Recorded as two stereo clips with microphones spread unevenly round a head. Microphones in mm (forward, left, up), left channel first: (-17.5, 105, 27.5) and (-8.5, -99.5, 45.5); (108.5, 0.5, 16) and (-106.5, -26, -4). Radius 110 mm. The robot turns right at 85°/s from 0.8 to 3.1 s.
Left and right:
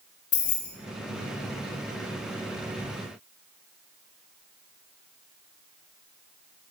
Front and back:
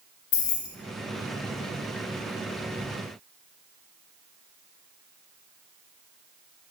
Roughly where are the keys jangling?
Ahead left.